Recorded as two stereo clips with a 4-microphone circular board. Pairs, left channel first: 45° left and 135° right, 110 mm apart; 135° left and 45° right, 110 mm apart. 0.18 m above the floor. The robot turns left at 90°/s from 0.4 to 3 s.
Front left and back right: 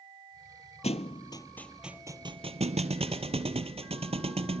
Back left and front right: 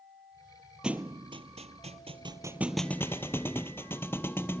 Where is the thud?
40° left, 0.8 m; by 4.6 s 155° right, 0.8 m.